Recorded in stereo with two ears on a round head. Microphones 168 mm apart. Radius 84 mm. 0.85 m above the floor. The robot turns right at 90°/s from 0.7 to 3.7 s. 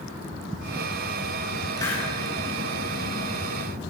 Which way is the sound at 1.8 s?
25° left (ahead or behind).